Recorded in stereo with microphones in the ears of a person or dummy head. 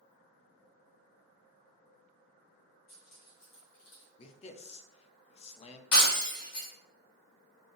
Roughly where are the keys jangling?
Left.